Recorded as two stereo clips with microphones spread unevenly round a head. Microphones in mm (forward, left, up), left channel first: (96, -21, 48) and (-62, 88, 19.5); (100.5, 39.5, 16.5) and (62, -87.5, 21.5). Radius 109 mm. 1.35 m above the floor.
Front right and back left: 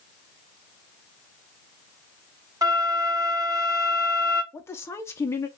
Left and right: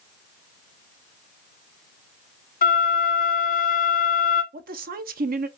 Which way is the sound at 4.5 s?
115° right.